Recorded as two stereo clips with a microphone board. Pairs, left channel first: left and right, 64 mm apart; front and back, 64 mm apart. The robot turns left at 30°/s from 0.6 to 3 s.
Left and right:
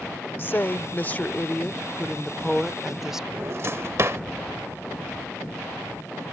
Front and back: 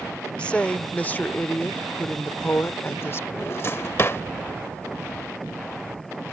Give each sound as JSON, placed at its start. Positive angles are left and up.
{"t": 0.4, "sound": "a woman speaking", "azimuth_deg": 60}
{"t": 3.3, "sound": "a drawer", "azimuth_deg": -50}